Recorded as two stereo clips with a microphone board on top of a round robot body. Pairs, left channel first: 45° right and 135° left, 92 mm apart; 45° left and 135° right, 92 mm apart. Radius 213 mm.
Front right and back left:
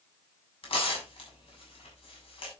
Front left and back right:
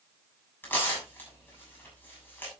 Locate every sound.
0.6 s tearing paper: 25° right, 7 m